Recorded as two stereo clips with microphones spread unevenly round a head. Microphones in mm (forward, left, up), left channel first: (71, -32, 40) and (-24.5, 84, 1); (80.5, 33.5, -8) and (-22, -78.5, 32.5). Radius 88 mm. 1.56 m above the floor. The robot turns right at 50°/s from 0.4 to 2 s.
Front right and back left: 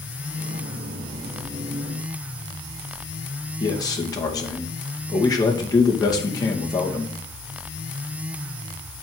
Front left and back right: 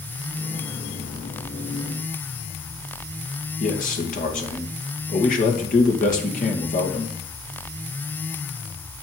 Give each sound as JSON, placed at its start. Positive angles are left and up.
{"t": 3.6, "sound": "a man speaking", "azimuth_deg": 15, "distance_m": 2.5}